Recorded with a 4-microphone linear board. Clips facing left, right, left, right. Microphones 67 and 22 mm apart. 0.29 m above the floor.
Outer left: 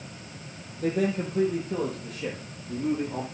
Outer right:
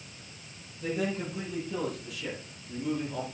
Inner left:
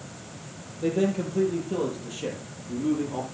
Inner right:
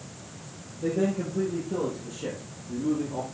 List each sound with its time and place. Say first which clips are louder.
0.8 s a man speaking: outer left 5 dB, inner left 2 dB; 50° left (ahead or behind), 8 m; by 3.2 s 35° left (ahead or behind), 7.5 m